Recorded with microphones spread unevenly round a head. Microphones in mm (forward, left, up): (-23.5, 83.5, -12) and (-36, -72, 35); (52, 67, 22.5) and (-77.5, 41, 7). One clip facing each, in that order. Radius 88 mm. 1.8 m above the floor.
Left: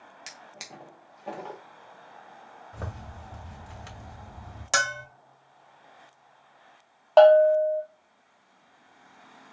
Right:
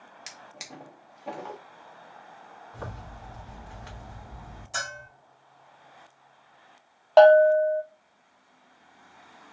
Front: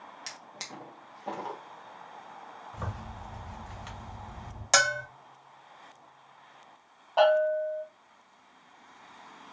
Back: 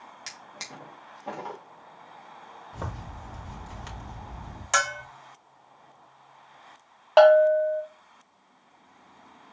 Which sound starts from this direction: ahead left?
A bell, at 4.7 s.